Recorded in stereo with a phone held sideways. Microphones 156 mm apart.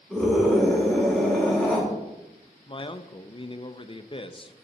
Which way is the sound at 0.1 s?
Centre (ahead or behind).